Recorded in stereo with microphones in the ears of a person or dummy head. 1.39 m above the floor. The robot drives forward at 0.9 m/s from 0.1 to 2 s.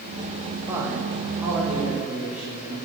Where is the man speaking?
15° right (ahead or behind), 0.8 m; by 2.8 s 5° right (ahead or behind), 2 m.